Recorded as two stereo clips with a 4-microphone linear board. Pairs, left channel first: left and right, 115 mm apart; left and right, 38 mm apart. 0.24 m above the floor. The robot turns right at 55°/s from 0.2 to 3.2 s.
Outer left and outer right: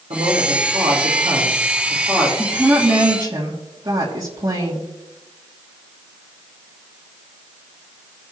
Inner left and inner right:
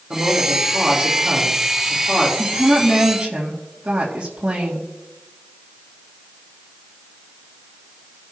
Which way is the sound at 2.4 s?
175° left.